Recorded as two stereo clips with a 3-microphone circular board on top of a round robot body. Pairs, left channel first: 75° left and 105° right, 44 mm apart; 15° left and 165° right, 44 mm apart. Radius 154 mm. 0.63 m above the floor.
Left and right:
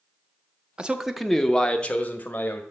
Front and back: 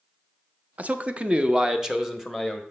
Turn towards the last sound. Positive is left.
turn(degrees=105)